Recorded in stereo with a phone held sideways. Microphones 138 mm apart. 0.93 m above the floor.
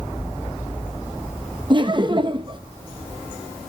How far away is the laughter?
About 0.6 m.